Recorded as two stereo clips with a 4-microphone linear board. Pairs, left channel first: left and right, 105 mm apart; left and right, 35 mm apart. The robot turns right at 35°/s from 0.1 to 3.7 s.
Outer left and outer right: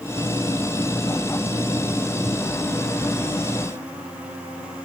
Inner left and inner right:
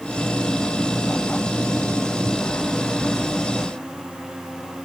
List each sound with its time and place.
Only background noise.